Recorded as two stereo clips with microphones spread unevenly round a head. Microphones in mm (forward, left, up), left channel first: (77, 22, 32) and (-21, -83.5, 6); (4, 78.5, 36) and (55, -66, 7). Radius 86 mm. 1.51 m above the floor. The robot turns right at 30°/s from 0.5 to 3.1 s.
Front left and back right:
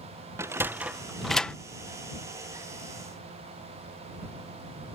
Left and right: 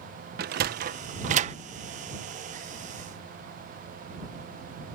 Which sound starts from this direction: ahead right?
A sliding door, at 0.4 s.